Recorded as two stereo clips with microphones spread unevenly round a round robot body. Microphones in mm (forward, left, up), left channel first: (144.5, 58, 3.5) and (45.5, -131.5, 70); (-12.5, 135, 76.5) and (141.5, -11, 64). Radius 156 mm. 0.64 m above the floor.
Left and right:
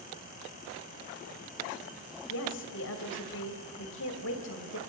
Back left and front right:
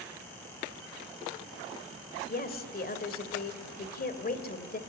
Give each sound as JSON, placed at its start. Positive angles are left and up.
{"t": 2.3, "sound": "a woman speaking", "azimuth_deg": 90, "distance_m": 2.5}